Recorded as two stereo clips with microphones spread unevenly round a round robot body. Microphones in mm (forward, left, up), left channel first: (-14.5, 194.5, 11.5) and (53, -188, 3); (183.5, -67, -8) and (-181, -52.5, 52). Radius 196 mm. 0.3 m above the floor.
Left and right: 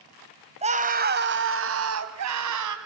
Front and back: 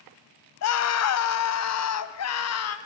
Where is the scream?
10° right, 1.7 m; by 2.8 s 40° right, 2.5 m.